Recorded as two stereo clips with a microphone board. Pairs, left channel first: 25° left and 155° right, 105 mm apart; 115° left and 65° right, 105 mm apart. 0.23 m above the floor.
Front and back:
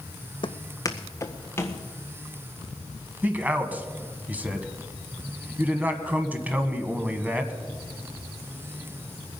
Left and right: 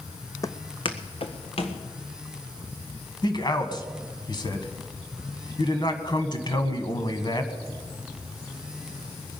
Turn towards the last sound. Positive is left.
turn(degrees=135)